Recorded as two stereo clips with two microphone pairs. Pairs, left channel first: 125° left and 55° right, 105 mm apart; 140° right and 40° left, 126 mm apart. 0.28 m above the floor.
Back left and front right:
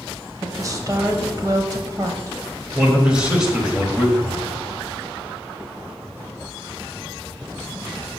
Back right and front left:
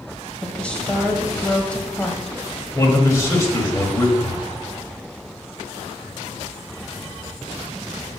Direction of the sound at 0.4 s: 65° right.